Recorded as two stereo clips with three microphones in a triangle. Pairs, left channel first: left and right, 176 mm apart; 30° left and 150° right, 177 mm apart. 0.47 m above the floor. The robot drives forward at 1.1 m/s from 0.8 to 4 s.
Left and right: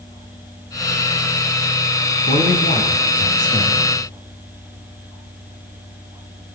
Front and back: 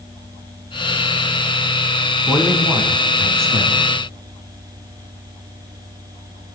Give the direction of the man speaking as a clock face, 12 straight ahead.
8 o'clock.